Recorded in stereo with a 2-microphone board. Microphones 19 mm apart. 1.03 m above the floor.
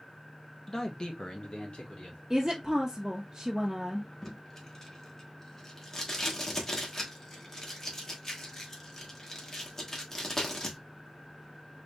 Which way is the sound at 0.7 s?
15° left (ahead or behind).